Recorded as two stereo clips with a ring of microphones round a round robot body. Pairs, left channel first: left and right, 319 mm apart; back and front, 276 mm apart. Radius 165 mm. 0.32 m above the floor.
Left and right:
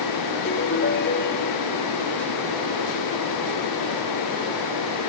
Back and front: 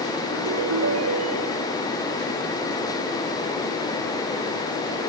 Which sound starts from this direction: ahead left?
A ringtone, at 0.3 s.